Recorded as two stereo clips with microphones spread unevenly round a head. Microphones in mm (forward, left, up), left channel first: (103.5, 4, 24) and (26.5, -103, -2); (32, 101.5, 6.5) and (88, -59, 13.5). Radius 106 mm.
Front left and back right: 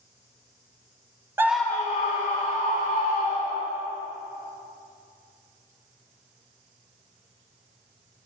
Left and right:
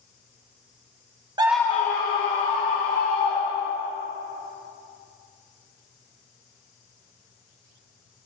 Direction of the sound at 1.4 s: 50° right.